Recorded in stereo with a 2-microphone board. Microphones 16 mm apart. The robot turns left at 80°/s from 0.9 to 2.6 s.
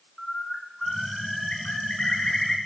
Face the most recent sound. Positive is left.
turn(degrees=25)